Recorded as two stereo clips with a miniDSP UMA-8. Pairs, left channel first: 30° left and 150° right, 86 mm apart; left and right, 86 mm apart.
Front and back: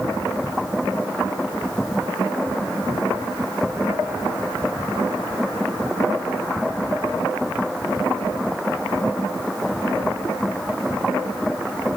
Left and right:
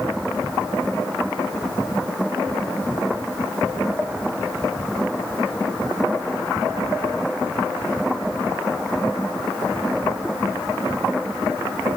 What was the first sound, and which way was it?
Only background noise.